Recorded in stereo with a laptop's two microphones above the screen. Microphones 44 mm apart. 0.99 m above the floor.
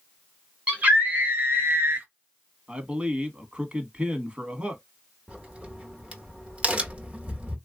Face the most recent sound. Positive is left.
turn(degrees=-30)  # may be behind; listen again after turning